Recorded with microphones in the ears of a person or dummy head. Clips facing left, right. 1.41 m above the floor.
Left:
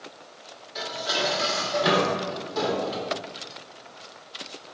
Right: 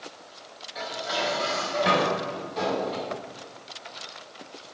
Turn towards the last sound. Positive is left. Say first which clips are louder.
# left 1 dB
turn(degrees=55)  # may be behind; listen again after turning